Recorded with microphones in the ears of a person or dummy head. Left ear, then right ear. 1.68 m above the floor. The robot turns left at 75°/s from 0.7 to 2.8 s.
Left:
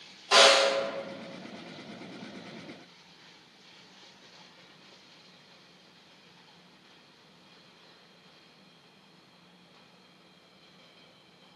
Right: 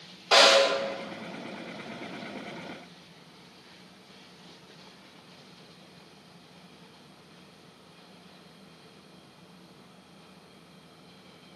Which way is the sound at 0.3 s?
15° right (ahead or behind).